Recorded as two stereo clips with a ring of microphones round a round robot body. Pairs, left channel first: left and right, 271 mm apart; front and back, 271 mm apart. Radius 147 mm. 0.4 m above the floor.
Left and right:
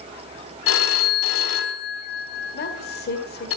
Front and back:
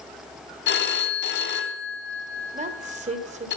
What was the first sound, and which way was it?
A phone ringing, 50° left.